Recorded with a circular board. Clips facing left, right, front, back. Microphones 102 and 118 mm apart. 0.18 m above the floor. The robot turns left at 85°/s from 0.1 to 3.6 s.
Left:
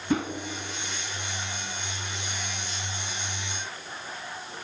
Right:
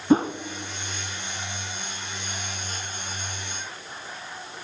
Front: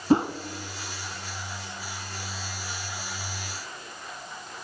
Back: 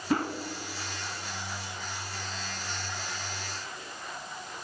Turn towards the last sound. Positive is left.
turn(degrees=10)